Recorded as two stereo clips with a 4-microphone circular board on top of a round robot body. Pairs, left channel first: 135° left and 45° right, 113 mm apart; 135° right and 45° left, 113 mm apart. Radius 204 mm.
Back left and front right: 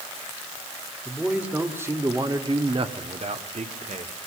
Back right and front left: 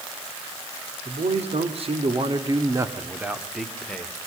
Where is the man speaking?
40° left, 3 m; by 4.1 s 60° right, 3 m.